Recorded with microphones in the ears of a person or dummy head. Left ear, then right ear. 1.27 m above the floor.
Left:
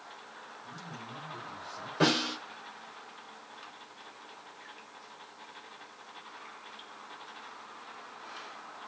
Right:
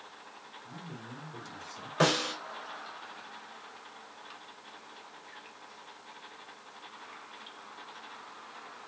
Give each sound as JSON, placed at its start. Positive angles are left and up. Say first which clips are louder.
{"t": 0.6, "sound": "a man speaking", "louder": "left 2 dB", "side_deg": -20, "distance_m": 4.0}
{"t": 2.0, "sound": "a snare drum", "louder": "even", "side_deg": -40, "distance_m": 5.0}